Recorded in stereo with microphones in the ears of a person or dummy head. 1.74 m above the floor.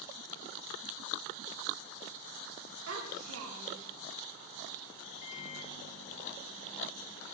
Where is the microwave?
50° left (ahead or behind), 1.1 m.